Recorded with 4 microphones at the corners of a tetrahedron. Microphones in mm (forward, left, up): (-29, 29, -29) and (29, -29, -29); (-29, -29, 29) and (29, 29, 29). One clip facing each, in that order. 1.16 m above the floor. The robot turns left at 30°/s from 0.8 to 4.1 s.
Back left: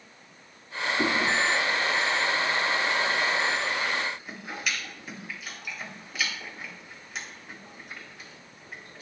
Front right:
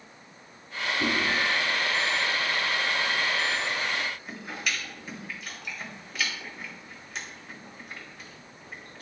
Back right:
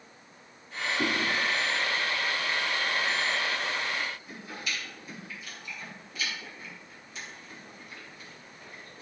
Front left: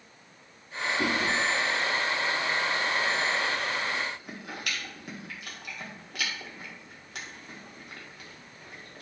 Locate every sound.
1.0 s chewing: 140° left, 1.5 m; by 9.0 s 45° left, 1.5 m